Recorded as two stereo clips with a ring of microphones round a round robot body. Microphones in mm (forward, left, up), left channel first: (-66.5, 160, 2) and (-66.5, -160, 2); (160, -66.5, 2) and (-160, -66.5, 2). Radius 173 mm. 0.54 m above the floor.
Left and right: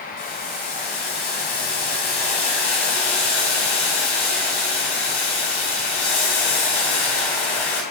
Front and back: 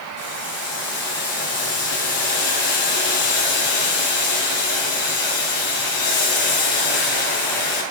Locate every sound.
0.2 s boiling: 60° left, 2.5 m